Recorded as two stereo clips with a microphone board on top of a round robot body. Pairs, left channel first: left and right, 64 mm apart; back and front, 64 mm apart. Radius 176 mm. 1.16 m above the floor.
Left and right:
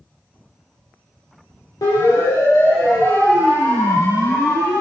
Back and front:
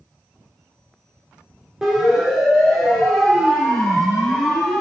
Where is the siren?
80° left, 5.5 m; by 4.8 s 95° left, 7 m.